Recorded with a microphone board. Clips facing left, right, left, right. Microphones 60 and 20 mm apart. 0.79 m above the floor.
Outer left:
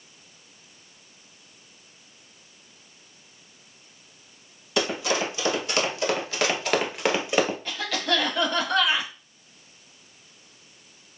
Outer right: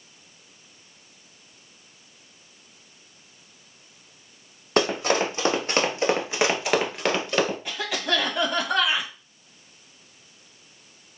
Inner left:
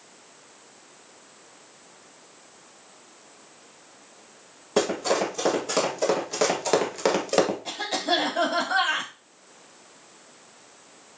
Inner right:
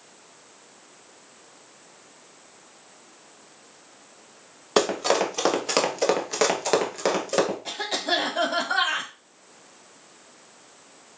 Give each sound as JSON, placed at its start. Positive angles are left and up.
{"t": 4.8, "sound": "running footsteps", "side_deg": -45, "distance_m": 1.3}
{"t": 7.7, "sound": "a cough", "side_deg": -15, "distance_m": 1.2}